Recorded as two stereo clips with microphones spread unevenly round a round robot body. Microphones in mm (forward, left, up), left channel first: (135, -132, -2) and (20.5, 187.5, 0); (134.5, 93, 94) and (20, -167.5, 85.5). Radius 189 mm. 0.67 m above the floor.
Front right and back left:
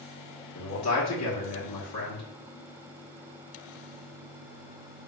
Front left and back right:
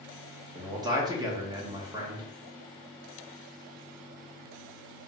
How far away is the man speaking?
About 1.4 m.